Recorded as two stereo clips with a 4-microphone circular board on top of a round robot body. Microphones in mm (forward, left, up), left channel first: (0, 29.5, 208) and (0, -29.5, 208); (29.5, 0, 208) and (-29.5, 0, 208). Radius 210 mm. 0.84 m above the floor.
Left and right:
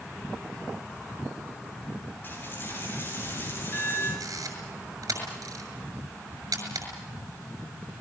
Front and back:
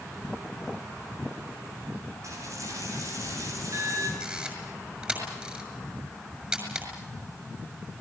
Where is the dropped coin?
145° left, 8.5 m.